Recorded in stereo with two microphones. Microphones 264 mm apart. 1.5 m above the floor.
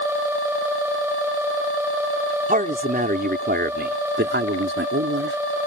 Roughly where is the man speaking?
Right.